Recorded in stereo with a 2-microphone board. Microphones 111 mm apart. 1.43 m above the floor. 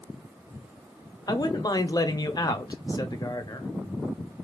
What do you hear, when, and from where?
1.3 s a man speaking: 35° left (ahead or behind), 0.7 m